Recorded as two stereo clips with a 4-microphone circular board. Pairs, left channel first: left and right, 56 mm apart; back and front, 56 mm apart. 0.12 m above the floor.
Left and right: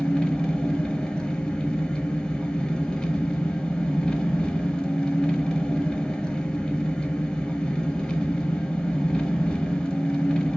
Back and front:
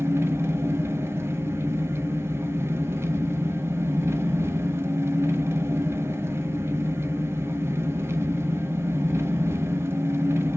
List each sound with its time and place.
0.0 s an engine running: 15° left, 0.8 m